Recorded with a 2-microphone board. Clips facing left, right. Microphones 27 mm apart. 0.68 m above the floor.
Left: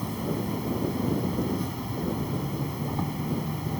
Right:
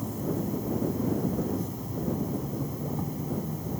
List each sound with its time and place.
0.0 s an insect: 60° left (ahead or behind)